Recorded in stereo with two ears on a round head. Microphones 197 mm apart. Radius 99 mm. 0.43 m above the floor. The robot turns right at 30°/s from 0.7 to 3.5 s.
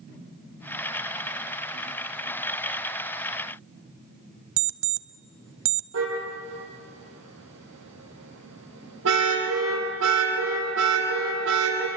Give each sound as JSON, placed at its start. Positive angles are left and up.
{"t": 4.6, "sound": "an alarm clock", "side_deg": -65, "distance_m": 0.9}
{"t": 5.9, "sound": "a car horn", "side_deg": -70, "distance_m": 8.5}